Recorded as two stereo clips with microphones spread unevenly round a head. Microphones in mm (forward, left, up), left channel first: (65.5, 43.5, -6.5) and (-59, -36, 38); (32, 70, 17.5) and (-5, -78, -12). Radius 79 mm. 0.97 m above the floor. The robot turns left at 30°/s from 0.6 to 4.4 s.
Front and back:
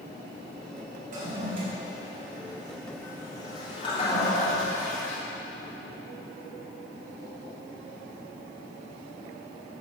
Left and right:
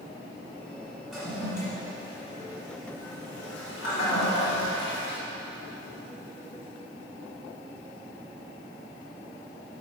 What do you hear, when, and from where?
1.1 s a toilet flushing: 165° left, 2.5 m; by 5.2 s 70° left, 2.5 m